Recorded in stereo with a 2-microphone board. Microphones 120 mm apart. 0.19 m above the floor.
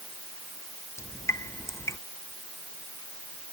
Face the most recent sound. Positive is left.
turn(degrees=25)  # may be behind; listen again after turning